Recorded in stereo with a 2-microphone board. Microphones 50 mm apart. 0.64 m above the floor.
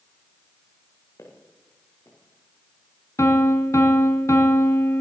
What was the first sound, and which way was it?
Footsteps, 70° left (ahead or behind).